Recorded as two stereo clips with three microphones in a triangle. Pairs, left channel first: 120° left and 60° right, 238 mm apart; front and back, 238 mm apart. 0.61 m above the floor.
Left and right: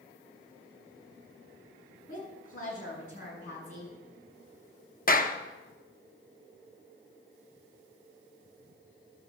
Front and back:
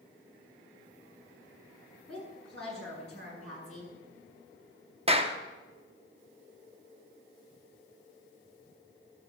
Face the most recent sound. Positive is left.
turn(degrees=135)